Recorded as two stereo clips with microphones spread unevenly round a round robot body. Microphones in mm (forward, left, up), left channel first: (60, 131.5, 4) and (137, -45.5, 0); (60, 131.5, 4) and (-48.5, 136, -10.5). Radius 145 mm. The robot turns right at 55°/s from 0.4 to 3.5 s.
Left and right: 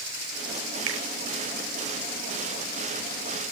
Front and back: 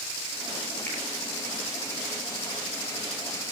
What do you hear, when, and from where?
0.9 s a finger snap: 85° right, 6.5 m; by 1.0 s 80° right, 6.5 m